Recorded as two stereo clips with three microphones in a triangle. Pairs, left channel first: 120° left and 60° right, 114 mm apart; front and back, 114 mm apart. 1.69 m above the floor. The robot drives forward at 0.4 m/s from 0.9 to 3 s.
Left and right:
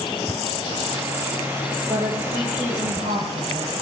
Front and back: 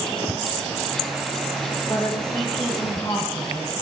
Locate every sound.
1.9 s a woman speaking: 45° right, 1.3 m; by 3.7 s 65° right, 1.1 m